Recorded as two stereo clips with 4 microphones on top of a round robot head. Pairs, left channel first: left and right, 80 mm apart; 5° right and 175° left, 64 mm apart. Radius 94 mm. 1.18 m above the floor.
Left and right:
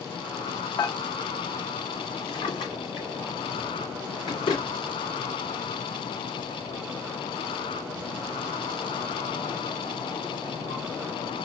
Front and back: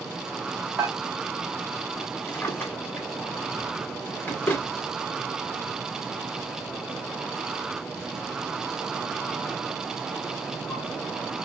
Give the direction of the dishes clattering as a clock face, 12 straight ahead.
8 o'clock.